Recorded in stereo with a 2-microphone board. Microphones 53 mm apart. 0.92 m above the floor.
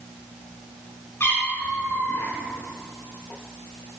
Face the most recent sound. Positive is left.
turn(degrees=50)  # may be behind; listen again after turning